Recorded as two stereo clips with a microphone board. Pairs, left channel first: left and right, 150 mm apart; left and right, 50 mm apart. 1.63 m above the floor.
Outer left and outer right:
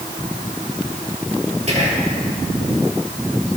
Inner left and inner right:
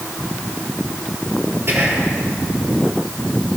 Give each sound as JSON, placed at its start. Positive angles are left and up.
{"t": 1.7, "sound": "whispering", "side_deg": -50, "distance_m": 3.5}